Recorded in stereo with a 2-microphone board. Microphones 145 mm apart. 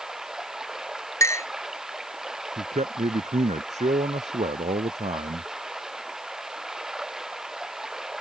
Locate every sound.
0.0 s running water: 5° right (ahead or behind)
1.2 s a clink: 20° left (ahead or behind)
2.6 s a man speaking: 55° right (ahead or behind)